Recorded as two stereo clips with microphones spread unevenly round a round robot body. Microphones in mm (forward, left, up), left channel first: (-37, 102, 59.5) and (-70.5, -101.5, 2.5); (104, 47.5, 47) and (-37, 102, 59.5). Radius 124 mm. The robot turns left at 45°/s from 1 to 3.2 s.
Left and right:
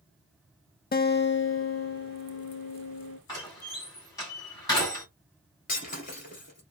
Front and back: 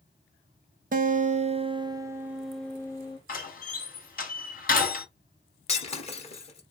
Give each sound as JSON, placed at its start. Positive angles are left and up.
{"t": 0.9, "sound": "a guitar", "azimuth_deg": 135, "distance_m": 0.7}
{"t": 3.3, "sound": "a door slam", "azimuth_deg": 0, "distance_m": 2.0}
{"t": 5.7, "sound": "breaking glass", "azimuth_deg": 30, "distance_m": 1.8}